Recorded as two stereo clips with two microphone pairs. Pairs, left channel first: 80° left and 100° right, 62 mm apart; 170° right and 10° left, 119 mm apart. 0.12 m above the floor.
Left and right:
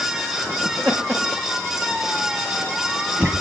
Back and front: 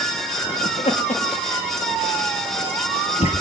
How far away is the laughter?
About 8.5 m.